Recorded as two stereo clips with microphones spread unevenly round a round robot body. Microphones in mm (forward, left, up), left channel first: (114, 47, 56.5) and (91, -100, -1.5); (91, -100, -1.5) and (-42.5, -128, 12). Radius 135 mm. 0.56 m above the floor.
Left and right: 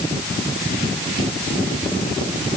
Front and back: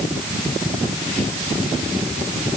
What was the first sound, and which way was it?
Only background noise.